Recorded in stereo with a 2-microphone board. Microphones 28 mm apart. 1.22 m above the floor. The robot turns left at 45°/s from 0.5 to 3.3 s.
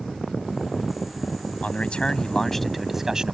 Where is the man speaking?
50° left; by 3.3 s 25° right.